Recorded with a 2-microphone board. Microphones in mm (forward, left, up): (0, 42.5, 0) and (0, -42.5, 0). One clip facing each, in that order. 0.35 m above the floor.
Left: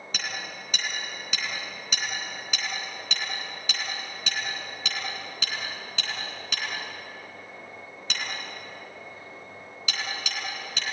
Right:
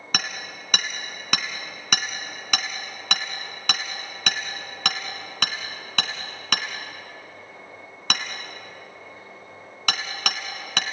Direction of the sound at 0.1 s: 60° right (ahead or behind).